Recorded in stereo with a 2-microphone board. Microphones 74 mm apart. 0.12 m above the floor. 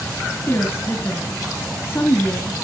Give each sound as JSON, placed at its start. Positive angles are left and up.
{"t": 0.5, "sound": "a woman speaking", "side_deg": 30, "distance_m": 1.8}